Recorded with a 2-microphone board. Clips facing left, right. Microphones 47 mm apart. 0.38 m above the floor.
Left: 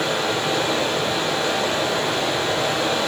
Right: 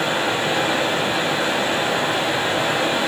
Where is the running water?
25° right (ahead or behind), 3 m.